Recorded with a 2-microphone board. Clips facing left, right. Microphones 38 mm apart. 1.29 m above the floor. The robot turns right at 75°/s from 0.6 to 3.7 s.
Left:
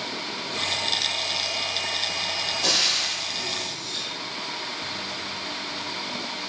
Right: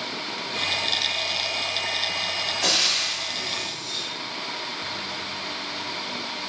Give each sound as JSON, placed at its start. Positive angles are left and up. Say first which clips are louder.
{"t": 2.6, "sound": "frying", "louder": "right 1 dB", "side_deg": -80, "distance_m": 1.3}